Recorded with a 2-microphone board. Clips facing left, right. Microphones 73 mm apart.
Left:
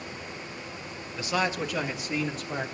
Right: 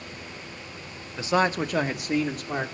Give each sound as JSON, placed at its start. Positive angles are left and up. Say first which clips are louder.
{"t": 1.2, "sound": "a man speaking", "louder": "right 5 dB", "side_deg": -25, "distance_m": 1.0}